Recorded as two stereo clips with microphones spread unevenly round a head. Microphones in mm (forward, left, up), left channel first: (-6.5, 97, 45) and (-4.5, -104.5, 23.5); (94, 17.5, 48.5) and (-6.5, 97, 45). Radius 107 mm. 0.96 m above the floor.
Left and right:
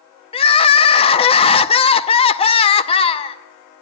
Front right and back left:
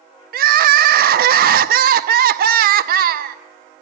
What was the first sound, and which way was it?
Crying, 155° left.